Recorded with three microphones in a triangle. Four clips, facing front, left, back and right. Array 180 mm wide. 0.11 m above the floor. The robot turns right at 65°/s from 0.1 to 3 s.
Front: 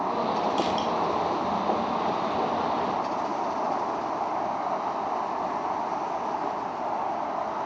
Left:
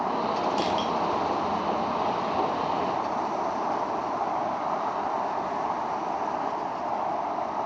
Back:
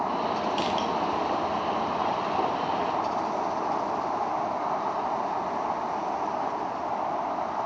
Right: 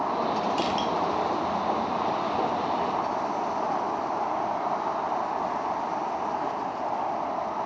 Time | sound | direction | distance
0.6 | crushing | 135° left | 0.6 m